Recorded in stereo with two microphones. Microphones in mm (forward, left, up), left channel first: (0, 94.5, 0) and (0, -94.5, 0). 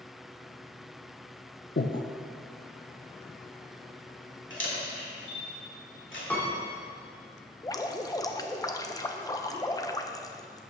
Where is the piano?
10° left (ahead or behind), 2.5 m.